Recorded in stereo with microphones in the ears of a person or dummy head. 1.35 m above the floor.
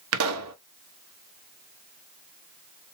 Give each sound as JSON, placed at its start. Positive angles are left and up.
{"t": 0.1, "sound": "a pop", "side_deg": -70, "distance_m": 0.8}